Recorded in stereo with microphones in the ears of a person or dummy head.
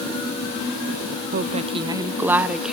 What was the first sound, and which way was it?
A woman speaking, 50° right (ahead or behind).